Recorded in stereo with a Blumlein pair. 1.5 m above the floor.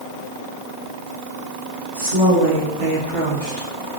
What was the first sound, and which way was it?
A woman speaking, 60° right.